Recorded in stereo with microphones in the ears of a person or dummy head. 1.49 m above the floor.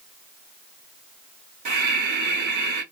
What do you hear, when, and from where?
1.6 s breathing: 55° right (ahead or behind), 1.1 m